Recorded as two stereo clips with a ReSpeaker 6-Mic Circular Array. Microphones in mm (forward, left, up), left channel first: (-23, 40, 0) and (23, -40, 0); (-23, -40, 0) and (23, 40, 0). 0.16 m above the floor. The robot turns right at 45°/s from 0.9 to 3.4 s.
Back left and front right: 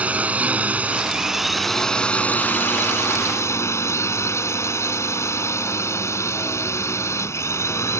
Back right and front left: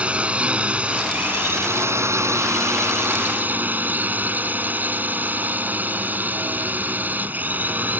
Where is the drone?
Straight ahead; by 8.0 s 110° left.